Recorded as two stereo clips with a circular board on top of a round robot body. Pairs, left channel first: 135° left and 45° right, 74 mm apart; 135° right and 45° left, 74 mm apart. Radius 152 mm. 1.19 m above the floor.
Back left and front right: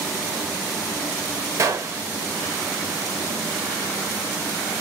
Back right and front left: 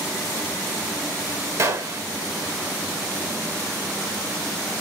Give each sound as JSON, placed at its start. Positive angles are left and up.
{"t": 1.6, "sound": "a gunshot", "azimuth_deg": 0, "distance_m": 1.0}